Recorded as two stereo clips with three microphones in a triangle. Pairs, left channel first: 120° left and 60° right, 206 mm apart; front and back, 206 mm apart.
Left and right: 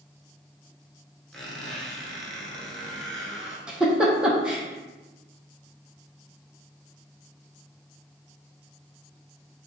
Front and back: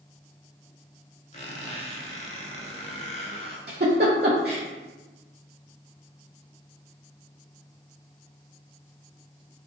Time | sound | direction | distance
1.3 | a squeak | 35° left | 0.7 m
3.7 | a giggle | 145° right | 0.8 m